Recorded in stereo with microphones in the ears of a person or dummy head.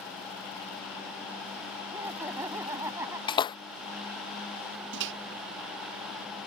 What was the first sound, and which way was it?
Laughter, 10° right (ahead or behind).